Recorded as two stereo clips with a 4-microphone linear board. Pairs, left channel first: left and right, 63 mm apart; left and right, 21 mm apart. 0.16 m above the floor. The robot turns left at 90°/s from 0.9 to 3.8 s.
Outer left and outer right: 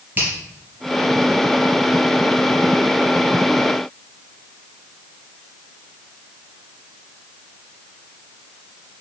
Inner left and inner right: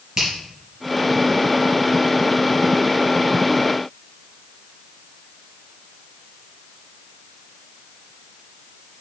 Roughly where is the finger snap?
Right.